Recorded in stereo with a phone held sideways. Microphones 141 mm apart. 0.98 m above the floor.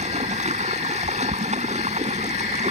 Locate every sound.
0.0 s running water: 55° right (ahead or behind)